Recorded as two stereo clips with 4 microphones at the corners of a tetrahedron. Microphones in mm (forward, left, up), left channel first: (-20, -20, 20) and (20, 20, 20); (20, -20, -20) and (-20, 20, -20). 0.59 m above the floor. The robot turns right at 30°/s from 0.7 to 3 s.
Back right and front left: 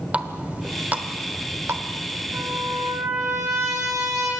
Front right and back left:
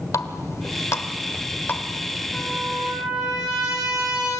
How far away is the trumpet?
About 9 m.